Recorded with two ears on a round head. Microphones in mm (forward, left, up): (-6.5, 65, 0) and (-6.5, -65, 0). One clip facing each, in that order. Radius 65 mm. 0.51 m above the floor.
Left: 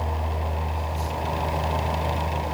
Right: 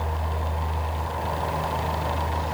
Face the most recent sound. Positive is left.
No sound to turn to.